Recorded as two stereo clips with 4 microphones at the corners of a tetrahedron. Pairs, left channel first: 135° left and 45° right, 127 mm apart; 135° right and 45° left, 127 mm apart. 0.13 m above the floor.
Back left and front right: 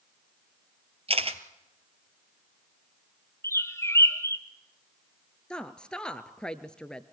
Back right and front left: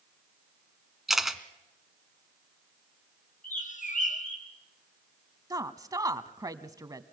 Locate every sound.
1.1 s a camera shutter: 40° right, 1.5 m
3.4 s a bird: 155° right, 1.4 m
5.5 s a woman speaking: 60° left, 1.2 m